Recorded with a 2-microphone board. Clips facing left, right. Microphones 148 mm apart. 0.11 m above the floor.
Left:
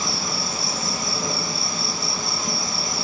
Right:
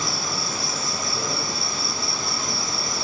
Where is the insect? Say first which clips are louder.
Left 1 dB; 25° left (ahead or behind), 1.0 m.